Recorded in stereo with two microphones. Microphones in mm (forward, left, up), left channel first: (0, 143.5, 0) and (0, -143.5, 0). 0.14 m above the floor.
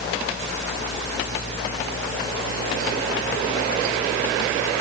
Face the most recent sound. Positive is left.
No sound to turn to.